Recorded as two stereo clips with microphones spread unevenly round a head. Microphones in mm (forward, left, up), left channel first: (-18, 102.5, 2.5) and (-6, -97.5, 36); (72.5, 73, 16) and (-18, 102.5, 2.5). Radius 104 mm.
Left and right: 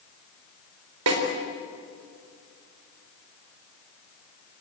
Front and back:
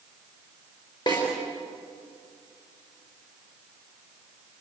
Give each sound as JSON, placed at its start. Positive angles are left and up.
{"t": 1.1, "sound": "a snare drum", "azimuth_deg": -90, "distance_m": 4.0}